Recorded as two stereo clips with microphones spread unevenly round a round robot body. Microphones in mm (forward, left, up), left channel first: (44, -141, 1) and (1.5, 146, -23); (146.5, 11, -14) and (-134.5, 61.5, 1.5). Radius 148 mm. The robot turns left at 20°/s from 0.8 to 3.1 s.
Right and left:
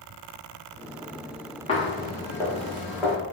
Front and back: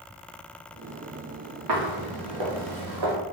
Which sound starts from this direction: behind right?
Footsteps, at 1.7 s.